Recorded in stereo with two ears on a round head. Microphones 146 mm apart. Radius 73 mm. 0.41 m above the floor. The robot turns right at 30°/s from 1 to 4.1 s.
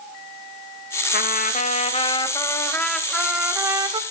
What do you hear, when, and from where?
1.1 s a trumpet: 120° left, 0.5 m; by 4.0 s 155° right, 0.5 m